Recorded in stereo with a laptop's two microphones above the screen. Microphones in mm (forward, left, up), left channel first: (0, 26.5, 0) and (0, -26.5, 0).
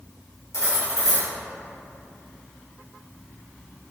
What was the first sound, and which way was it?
Cutlery clinking, 75° left (ahead or behind).